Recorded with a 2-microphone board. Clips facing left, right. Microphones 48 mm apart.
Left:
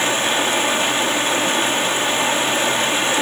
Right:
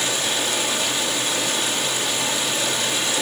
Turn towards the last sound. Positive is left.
turn(degrees=35)  # may be behind; listen again after turning